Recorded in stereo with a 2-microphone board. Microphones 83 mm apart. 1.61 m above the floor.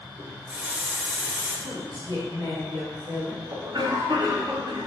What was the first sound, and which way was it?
A running tap, 10° right (ahead or behind).